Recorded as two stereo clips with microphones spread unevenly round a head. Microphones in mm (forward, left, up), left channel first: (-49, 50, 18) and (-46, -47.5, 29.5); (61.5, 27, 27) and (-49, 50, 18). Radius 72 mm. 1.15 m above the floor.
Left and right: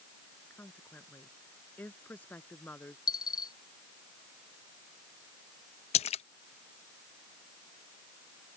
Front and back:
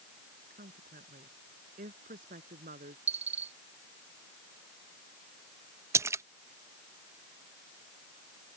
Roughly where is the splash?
Left.